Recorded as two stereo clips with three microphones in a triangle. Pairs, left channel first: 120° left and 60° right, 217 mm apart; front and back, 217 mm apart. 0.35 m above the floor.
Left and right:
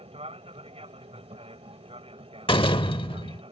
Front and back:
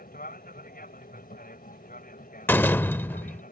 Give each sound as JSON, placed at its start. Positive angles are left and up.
{"t": 0.0, "sound": "an aircraft", "azimuth_deg": -10}
{"t": 2.5, "sound": "a door slam", "azimuth_deg": 75}